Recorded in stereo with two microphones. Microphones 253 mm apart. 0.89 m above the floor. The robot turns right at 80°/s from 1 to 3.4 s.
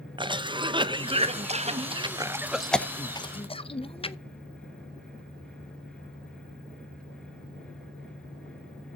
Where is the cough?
20° right (ahead or behind), 0.6 m; by 4.2 s 20° left (ahead or behind), 0.6 m.